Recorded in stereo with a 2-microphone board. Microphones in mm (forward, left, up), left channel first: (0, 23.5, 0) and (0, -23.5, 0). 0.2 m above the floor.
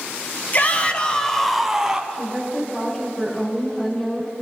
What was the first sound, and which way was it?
A shout, 40° left (ahead or behind).